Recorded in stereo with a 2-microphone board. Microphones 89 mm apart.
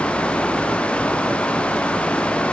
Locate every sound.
Only background noise.